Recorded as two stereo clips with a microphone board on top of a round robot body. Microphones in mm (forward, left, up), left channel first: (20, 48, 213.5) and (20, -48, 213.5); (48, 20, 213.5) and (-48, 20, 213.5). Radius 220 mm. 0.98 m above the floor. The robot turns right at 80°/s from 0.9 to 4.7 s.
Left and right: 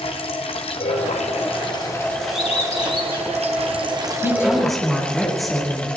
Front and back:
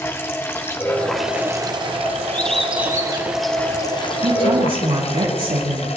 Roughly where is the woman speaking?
Behind left.